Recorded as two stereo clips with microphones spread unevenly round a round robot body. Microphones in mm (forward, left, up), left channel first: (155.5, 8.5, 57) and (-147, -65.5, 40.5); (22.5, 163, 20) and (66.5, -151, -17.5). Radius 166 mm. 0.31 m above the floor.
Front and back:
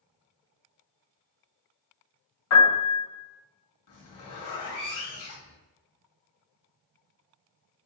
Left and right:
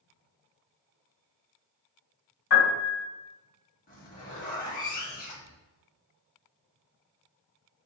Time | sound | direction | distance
2.5 | a piano | 50° left | 1.6 m
3.9 | a zipper | 35° left | 1.6 m